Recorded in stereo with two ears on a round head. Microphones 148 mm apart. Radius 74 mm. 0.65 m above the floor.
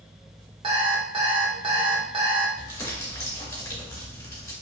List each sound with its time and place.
0.6 s an alarm clock: 30° right (ahead or behind), 0.7 m
2.6 s crumpling: 20° left (ahead or behind), 1.9 m